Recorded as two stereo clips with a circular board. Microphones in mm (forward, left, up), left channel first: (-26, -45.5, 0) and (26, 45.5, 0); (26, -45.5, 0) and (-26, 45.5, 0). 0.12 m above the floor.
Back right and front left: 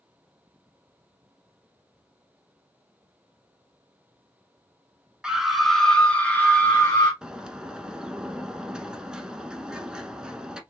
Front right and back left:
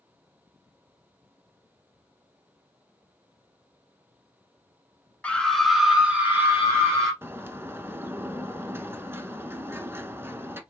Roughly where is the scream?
Ahead.